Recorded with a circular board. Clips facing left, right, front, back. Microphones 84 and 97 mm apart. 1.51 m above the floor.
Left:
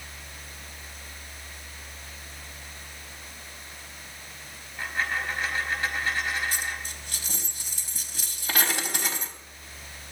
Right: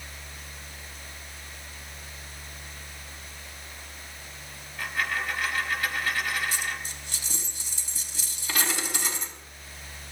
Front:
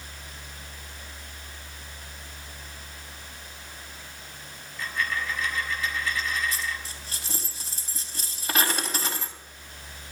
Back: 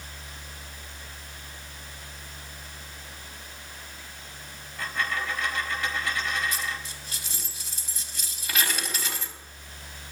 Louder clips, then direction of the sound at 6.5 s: Even, even; 55° left.